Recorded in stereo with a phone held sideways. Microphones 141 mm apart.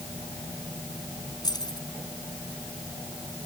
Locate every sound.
1.4 s keys jangling: 30° left (ahead or behind)